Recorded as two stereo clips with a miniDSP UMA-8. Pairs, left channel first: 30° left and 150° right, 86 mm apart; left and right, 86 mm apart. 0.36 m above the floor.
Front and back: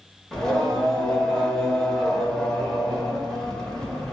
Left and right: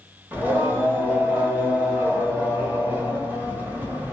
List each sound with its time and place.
0.3 s singing: 45° right, 0.8 m